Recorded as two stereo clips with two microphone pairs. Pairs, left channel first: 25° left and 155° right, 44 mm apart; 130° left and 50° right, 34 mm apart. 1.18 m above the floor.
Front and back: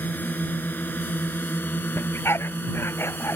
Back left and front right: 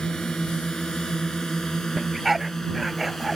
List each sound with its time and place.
0.0 s a drone: 65° left; by 3.4 s 50° left
2.0 s a dog barking: 35° left